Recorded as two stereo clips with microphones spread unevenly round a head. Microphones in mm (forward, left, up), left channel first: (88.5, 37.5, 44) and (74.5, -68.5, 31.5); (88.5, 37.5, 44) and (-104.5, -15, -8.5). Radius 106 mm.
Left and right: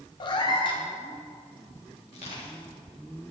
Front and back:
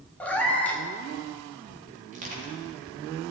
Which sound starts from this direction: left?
A cat meowing, at 0.2 s.